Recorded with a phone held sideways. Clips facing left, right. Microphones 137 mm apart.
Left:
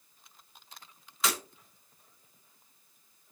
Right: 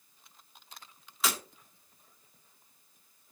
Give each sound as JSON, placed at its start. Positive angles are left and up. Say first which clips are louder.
{"t": 1.2, "sound": "breaking glass", "louder": "left 1 dB", "side_deg": 0, "distance_m": 3.0}